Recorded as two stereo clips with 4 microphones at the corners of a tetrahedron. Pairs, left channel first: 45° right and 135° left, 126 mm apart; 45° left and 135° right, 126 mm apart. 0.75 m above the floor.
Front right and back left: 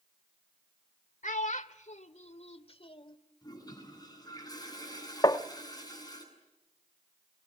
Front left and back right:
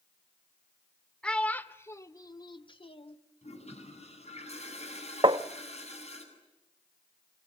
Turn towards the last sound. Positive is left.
turn(degrees=-95)